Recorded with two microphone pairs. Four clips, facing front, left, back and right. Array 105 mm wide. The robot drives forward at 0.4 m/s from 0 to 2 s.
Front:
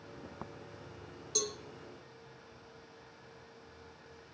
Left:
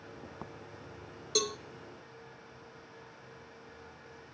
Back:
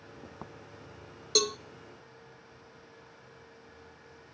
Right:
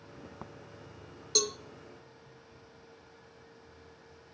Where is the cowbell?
175° left, 0.6 m.